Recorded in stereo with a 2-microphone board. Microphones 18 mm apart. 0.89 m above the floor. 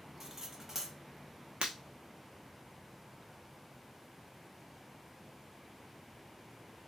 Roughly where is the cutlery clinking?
Right.